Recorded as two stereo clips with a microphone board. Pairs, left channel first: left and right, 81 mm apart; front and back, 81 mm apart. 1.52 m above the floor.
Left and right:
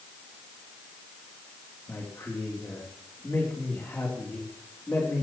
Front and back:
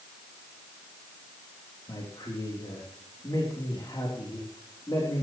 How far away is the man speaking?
About 3.5 m.